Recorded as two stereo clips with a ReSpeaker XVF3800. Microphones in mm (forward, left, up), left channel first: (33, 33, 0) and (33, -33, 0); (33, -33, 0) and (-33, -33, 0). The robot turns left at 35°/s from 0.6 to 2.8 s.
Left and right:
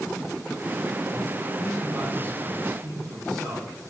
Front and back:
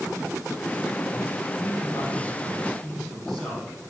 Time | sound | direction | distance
1.6 | a man speaking | 35° right | 7.5 m